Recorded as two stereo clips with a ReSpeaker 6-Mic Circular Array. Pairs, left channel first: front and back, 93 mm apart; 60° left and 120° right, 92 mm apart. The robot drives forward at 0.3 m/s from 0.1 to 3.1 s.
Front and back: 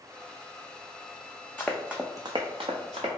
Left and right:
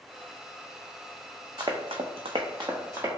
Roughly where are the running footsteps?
Right.